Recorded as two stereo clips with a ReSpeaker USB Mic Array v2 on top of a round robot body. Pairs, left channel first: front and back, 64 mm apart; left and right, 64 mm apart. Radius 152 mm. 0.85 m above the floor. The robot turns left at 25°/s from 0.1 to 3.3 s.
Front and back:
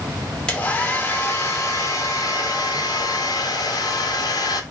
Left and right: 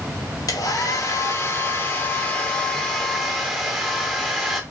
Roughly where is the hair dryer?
Left.